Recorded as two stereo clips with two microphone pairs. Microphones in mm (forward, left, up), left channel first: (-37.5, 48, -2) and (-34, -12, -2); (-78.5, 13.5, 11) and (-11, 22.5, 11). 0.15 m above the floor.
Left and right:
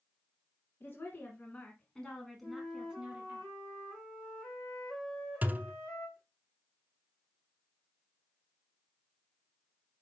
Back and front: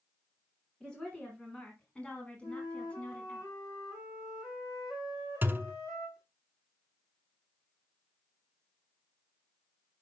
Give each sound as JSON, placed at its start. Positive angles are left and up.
{"t": 0.8, "sound": "a woman speaking", "azimuth_deg": 115, "distance_m": 1.7}
{"t": 2.4, "sound": "a flute", "azimuth_deg": 170, "distance_m": 4.5}
{"t": 5.4, "sound": "a thud", "azimuth_deg": -40, "distance_m": 0.6}